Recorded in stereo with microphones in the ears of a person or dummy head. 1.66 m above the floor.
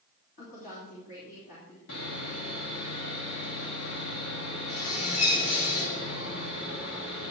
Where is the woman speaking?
55° left (ahead or behind), 3 m.